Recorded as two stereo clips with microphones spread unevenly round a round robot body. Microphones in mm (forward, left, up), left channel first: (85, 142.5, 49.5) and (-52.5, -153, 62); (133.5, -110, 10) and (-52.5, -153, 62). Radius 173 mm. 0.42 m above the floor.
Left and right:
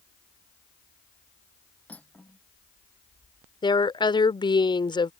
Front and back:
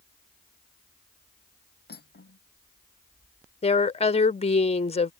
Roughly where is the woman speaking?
Ahead.